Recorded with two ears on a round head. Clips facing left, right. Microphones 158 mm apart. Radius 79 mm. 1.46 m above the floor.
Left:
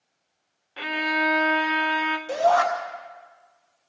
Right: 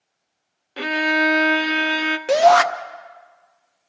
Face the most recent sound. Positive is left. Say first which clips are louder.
# right 7 dB
turn(degrees=-80)